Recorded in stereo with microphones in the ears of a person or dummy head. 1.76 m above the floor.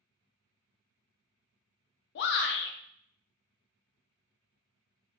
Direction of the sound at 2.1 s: 65° left (ahead or behind).